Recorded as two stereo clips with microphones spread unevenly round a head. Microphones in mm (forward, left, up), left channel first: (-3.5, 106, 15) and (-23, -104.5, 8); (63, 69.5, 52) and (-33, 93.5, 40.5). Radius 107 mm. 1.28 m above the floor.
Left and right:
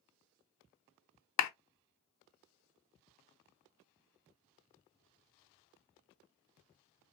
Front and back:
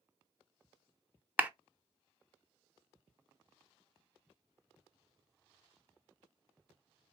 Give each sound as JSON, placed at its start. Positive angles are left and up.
{"t": 1.4, "sound": "a clap", "azimuth_deg": 90, "distance_m": 0.7}